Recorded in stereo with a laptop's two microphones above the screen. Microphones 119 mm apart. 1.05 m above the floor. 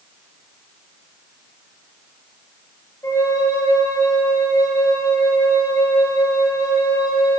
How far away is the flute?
About 3.5 m.